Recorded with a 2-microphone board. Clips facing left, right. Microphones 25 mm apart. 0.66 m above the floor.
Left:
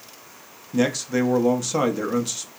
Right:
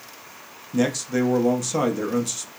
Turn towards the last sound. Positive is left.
turn(degrees=10)  # may be behind; listen again after turning